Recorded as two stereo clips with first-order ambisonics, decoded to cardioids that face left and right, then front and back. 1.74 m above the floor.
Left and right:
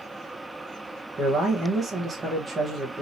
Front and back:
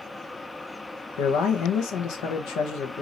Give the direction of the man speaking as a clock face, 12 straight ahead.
1 o'clock.